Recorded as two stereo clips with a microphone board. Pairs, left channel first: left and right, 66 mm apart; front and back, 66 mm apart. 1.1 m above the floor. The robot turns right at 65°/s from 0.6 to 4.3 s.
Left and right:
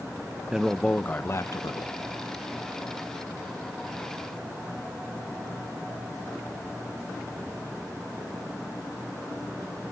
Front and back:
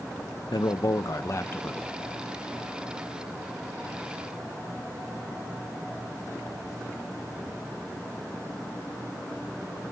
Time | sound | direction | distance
0.5 | a man speaking | 5° right | 0.6 m